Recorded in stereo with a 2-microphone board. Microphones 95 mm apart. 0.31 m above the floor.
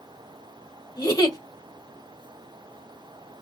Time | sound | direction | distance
1.0 | a giggle | 40° left (ahead or behind) | 1.2 m